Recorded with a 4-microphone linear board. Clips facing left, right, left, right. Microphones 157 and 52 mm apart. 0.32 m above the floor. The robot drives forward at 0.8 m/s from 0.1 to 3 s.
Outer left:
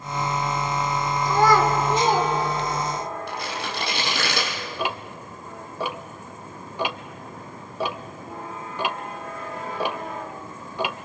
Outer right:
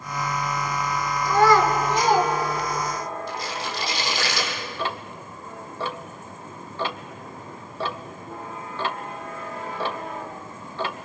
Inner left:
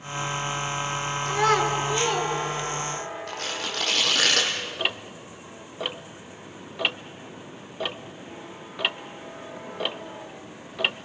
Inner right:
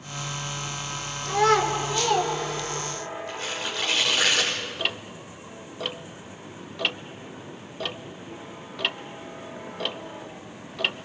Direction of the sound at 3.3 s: 60° left (ahead or behind).